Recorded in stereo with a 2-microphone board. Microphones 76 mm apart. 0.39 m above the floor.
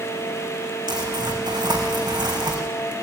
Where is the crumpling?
75° right (ahead or behind), 4.5 m.